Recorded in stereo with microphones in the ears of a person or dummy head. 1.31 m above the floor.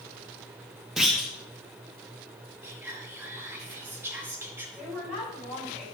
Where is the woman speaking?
5° right (ahead or behind), 5 m.